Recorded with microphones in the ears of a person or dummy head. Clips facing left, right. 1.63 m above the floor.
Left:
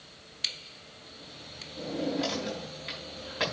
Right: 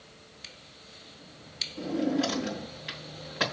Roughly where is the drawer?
Centre.